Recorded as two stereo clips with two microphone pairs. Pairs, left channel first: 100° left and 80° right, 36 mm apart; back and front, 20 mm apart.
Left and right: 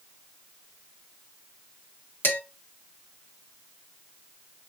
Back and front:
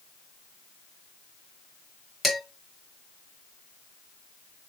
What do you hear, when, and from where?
2.2 s dishes clattering: 95° left, 2.5 m